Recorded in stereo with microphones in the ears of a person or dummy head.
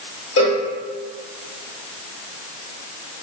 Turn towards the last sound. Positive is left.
turn(degrees=65)  # may be behind; listen again after turning